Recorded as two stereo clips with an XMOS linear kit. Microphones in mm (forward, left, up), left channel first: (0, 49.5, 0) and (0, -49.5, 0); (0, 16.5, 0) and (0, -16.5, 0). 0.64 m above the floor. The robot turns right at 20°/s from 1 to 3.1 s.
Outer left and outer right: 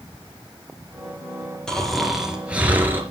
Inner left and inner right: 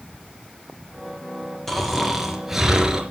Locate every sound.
1.7 s snoring: 5° left (ahead or behind), 3.5 m; by 3.0 s 20° right (ahead or behind), 3.5 m